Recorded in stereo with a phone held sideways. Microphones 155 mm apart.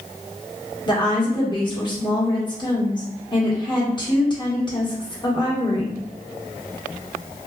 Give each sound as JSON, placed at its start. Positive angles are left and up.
{"t": 0.9, "sound": "a woman speaking", "side_deg": 30, "distance_m": 1.3}